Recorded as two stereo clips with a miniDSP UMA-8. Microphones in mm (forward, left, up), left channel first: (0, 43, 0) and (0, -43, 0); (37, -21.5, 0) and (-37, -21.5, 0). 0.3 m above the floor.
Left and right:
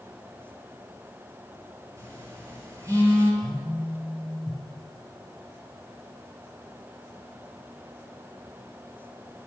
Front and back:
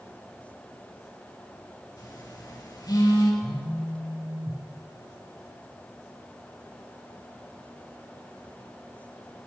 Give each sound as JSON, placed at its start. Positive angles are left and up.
{"t": 2.0, "sound": "a phone buzzing", "azimuth_deg": -35, "distance_m": 5.0}
{"t": 3.4, "sound": "a phone buzzing", "azimuth_deg": -5, "distance_m": 5.0}